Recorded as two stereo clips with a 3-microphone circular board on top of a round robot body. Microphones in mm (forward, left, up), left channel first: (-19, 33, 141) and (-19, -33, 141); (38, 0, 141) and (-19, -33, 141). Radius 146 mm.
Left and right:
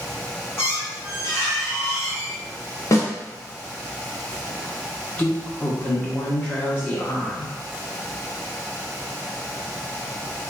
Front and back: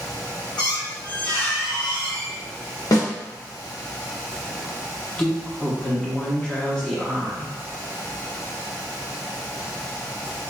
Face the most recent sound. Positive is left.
turn(degrees=75)